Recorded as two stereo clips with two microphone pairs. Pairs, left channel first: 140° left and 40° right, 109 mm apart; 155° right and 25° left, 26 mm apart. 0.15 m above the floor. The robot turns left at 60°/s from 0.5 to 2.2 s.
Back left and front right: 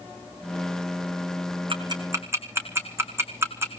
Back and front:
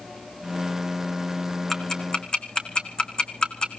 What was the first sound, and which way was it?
Ticking, 75° right.